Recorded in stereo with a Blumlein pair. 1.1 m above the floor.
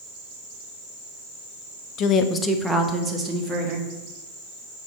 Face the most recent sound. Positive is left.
turn(degrees=-25)